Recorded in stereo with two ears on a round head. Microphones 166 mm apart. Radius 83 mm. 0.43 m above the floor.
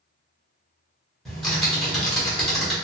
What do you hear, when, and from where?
1.2 s typing on a keyboard: 5° left (ahead or behind), 1.2 m